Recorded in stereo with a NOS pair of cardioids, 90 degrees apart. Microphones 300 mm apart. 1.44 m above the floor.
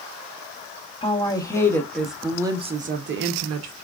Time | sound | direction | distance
1.0 | a woman speaking | 15° left | 1.3 m